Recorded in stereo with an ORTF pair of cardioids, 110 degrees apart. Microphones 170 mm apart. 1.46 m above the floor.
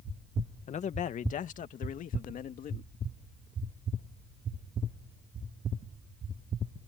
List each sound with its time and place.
0.7 s a man speaking: 45° left; by 2.9 s 55° left